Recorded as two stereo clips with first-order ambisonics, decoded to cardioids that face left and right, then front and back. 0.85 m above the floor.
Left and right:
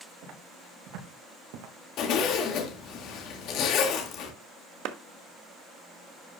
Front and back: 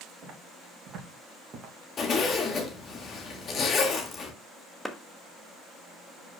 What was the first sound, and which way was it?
Footsteps, 130° right.